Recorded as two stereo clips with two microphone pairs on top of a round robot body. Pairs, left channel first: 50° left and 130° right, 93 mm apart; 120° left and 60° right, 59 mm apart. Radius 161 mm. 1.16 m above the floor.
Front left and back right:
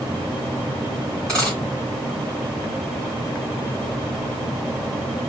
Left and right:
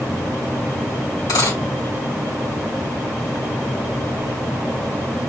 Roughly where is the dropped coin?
Behind left.